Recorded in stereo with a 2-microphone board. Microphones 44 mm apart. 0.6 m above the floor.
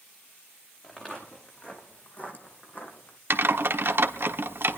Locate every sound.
0.8 s footsteps: 25° left (ahead or behind), 2.5 m; by 3.2 s 50° left (ahead or behind), 2 m
3.3 s typing on a keyboard: 60° right (ahead or behind), 1.0 m